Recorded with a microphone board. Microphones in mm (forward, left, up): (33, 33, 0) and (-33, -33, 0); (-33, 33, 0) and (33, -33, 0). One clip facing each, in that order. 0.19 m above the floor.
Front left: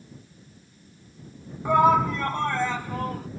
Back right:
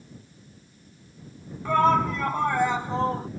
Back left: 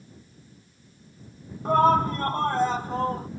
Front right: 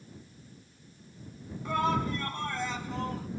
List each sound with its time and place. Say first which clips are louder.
1.6 s a shout: front left 2 dB, back left 9 dB; 115° left; by 3.3 s straight behind